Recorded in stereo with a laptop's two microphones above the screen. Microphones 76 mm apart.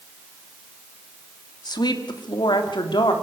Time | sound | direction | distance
1.6 | a woman speaking | 70° left (ahead or behind) | 2.5 m